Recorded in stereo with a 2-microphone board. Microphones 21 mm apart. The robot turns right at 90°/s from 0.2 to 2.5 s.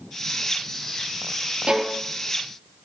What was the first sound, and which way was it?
A violin, 60° right (ahead or behind).